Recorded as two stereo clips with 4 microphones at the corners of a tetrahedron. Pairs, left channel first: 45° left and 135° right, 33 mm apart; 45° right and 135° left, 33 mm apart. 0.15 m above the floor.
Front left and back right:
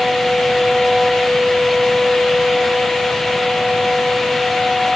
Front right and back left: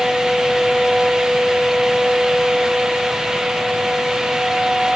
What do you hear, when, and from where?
Only background noise.